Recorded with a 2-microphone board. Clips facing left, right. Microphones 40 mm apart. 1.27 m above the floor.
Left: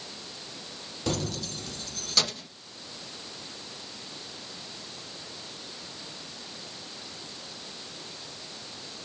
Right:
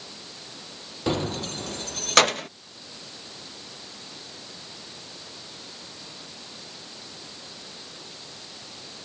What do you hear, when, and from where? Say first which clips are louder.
1.1 s keys jangling: right 5 dB; 25° right (ahead or behind); by 2.5 s 65° right (ahead or behind)